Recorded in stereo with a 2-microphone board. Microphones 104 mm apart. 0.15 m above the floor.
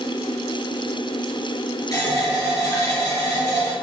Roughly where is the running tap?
Left.